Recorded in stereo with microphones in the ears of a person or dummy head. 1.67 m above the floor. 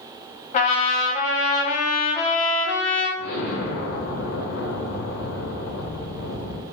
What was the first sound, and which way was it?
A trumpet, 40° left (ahead or behind).